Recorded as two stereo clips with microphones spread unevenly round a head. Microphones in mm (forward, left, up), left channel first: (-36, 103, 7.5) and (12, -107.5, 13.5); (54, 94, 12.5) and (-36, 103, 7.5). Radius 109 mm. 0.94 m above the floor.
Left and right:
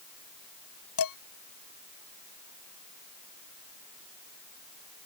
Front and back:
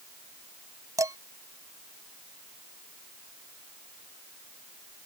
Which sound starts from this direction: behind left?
Dishes clattering, at 1.0 s.